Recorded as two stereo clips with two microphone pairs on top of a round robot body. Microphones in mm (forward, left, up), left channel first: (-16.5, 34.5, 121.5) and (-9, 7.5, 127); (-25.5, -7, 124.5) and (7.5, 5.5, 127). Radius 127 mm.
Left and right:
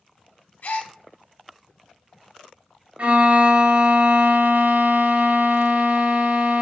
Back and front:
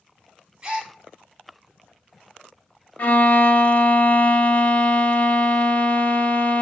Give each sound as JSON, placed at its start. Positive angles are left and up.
{"t": 0.6, "sound": "a gasp", "azimuth_deg": 90, "distance_m": 1.3}
{"t": 3.0, "sound": "a violin", "azimuth_deg": -110, "distance_m": 0.6}